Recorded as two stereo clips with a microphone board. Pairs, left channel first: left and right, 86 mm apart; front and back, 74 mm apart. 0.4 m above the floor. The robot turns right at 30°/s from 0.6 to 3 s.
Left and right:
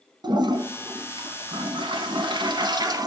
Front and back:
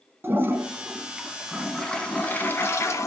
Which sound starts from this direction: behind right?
A toilet flushing, at 0.2 s.